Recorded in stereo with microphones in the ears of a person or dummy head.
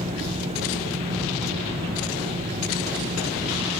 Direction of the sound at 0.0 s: 35° right (ahead or behind).